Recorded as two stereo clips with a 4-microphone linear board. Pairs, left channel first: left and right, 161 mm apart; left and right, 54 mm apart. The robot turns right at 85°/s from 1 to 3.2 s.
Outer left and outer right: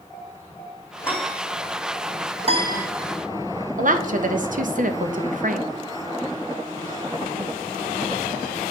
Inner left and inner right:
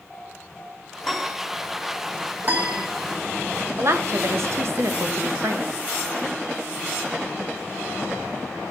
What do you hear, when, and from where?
1.0 s a piano: 165° left, 0.9 m; by 1.4 s 165° right, 0.9 m
2.4 s a piano: 45° right, 0.8 m; by 2.9 s 10° right, 0.8 m
3.8 s a woman speaking: 55° right (ahead or behind), 0.6 m